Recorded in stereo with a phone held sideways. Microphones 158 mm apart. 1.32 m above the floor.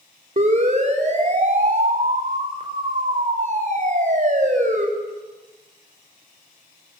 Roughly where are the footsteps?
No footsteps in this recording.